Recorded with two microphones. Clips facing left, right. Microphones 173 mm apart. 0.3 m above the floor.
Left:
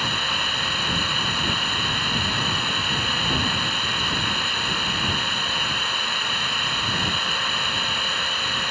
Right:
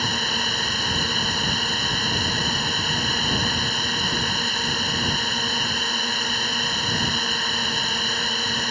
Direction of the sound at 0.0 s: 40° right (ahead or behind).